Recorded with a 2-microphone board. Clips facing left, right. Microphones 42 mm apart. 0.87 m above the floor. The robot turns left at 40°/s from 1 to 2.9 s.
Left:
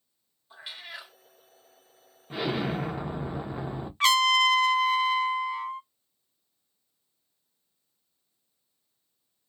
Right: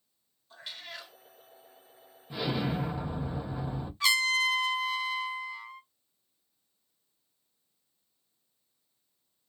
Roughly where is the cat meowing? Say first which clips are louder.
Left 2 dB; centre.